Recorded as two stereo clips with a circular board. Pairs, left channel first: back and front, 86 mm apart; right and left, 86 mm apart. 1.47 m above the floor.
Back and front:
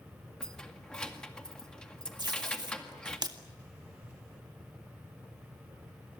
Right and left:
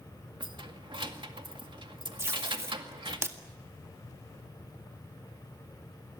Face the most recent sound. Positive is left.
turn(degrees=30)